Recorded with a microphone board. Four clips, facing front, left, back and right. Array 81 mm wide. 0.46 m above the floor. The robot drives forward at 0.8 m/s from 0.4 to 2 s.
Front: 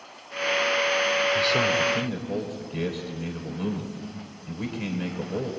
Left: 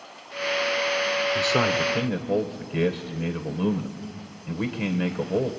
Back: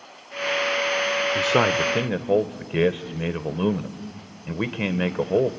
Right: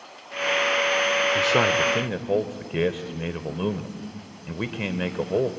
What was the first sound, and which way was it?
A man speaking, 160° right.